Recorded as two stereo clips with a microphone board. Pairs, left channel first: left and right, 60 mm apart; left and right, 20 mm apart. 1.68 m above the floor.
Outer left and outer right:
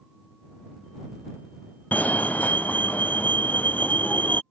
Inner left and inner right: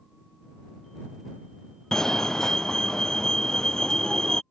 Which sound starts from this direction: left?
A fire alarm, at 1.9 s.